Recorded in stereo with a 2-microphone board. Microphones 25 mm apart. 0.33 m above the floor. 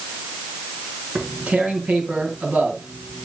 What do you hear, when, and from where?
1.1 s tearing paper: 50° right (ahead or behind), 4.5 m